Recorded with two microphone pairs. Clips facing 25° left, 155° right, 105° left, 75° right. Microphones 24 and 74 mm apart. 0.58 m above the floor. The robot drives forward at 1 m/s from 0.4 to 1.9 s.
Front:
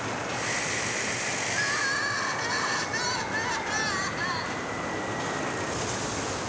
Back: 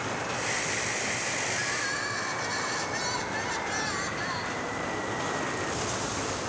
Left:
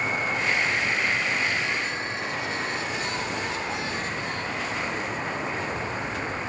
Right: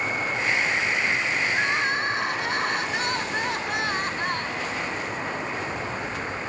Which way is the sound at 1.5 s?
40° right.